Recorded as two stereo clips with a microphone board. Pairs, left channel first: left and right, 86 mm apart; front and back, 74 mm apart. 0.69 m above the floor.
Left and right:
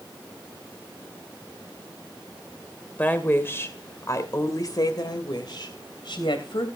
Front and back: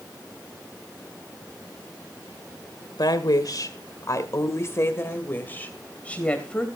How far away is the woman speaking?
About 2 m.